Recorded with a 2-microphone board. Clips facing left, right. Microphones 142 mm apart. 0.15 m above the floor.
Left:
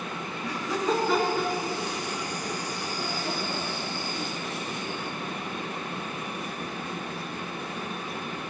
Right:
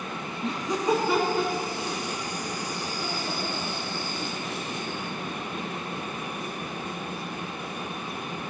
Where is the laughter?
25° right (ahead or behind), 1.4 m; by 4.6 s 35° left (ahead or behind), 3.5 m.